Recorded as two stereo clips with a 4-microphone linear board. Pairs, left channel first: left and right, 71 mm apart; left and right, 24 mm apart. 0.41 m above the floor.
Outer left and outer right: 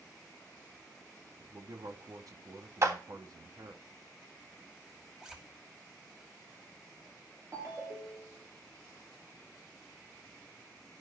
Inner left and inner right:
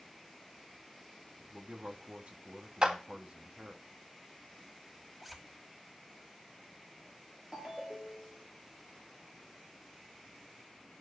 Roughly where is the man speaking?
Right.